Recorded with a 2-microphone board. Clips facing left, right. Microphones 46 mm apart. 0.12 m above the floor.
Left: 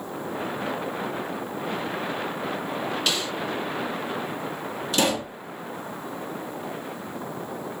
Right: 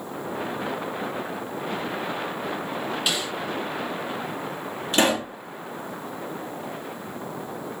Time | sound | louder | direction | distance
3.1 | a snare drum | even | 15° right (ahead or behind) | 1.8 m
4.9 | a pop | right 3 dB | 40° right (ahead or behind) | 1.8 m